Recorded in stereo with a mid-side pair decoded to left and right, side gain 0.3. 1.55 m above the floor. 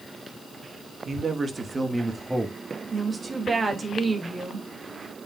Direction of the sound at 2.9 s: 55° right.